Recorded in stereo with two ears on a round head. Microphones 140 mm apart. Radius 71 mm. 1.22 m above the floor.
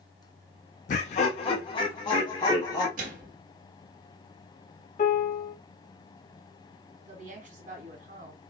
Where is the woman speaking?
55° right (ahead or behind), 1.6 m.